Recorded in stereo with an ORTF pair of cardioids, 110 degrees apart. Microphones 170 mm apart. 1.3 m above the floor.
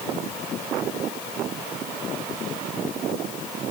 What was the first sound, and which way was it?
Only background noise.